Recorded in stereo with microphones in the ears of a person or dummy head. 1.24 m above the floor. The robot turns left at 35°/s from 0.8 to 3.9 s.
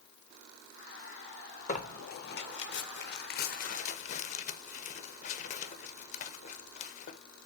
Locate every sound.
1.7 s tearing paper: 35° left (ahead or behind), 0.6 m; by 7.2 s 45° left (ahead or behind), 0.6 m